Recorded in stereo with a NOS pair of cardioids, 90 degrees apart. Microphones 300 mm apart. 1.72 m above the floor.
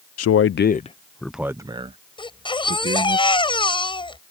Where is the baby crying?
15° left.